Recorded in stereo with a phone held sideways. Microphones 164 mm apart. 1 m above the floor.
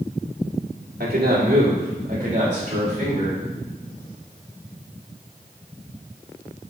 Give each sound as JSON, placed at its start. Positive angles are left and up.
{"t": 1.0, "sound": "a man speaking", "side_deg": -70, "distance_m": 2.0}